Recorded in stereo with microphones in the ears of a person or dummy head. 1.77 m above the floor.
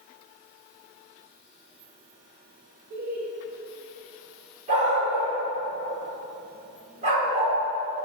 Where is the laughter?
50° right (ahead or behind), 2.5 m.